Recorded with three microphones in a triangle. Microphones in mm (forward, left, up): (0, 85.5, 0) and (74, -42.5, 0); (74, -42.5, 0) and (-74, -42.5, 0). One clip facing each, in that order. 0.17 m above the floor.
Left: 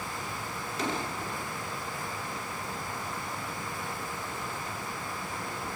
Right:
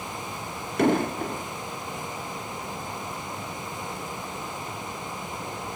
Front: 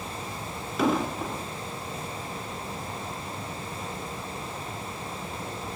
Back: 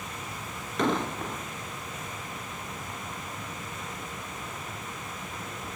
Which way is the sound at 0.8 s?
85° right.